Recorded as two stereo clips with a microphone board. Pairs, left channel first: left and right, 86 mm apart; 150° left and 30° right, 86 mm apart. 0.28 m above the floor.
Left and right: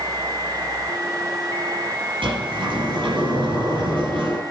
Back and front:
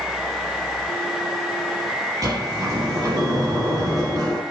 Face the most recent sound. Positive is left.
turn(degrees=-75)